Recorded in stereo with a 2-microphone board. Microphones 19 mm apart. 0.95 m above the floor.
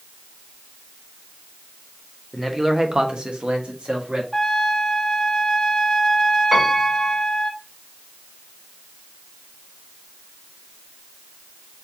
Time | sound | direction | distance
2.3 | a man speaking | 10° right (ahead or behind) | 1.2 m
4.3 | a trumpet | 20° left (ahead or behind) | 0.8 m
6.5 | a piano | 20° right (ahead or behind) | 2.5 m